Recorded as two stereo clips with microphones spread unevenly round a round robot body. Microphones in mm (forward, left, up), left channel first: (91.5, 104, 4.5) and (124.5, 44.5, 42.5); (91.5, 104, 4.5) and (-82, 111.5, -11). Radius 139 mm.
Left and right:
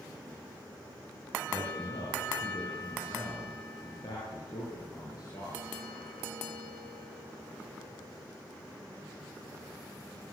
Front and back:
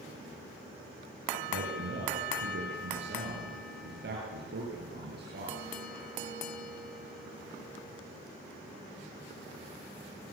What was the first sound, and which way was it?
A man speaking, 175° left.